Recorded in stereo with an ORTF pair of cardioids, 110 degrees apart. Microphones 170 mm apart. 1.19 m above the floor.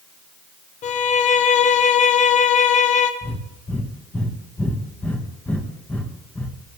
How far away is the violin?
About 0.6 m.